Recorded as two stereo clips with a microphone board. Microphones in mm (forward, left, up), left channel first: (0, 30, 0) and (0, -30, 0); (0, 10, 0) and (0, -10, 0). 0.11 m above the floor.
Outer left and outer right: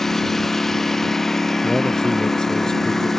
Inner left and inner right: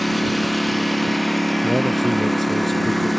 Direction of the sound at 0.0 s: 5° left (ahead or behind).